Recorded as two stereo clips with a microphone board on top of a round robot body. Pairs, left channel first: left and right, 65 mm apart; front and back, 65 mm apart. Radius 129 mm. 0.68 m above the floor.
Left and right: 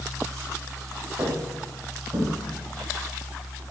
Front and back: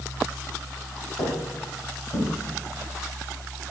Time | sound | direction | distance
1.2 | footsteps | 45° right | 3.5 m